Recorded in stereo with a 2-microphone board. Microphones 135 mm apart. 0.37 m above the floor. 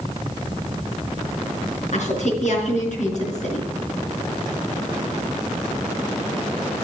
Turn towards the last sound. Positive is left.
turn(degrees=60)  # may be behind; listen again after turning